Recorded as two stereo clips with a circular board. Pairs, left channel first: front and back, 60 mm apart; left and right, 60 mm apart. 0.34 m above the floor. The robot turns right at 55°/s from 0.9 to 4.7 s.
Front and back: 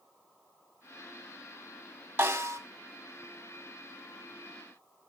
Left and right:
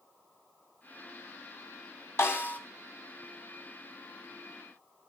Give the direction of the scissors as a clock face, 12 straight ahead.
No scissors in this recording.